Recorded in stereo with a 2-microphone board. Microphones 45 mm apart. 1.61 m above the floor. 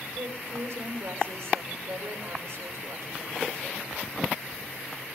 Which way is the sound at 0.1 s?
80° right.